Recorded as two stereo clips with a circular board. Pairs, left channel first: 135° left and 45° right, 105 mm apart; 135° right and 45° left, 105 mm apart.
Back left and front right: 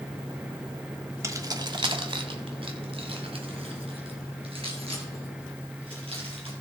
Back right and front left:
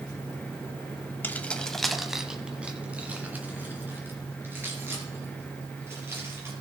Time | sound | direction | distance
1.2 | keys jangling | 80° right | 0.7 m